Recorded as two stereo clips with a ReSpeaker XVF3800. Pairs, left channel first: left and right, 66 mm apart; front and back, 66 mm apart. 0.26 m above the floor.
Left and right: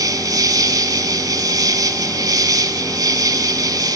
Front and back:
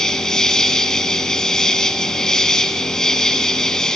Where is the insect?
80° right, 0.8 m.